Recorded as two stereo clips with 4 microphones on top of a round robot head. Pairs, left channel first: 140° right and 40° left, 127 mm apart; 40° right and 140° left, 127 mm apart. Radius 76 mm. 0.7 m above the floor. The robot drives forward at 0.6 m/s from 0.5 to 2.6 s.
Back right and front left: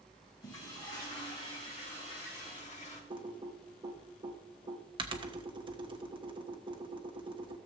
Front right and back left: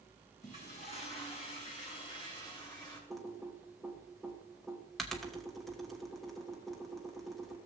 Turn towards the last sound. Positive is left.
turn(degrees=50)